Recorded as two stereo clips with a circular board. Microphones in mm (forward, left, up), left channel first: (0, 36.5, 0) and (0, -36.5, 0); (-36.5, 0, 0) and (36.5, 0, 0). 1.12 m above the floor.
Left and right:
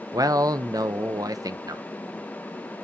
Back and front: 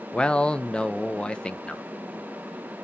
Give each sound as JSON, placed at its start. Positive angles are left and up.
{"t": 0.1, "sound": "a man speaking", "azimuth_deg": -105, "distance_m": 0.8}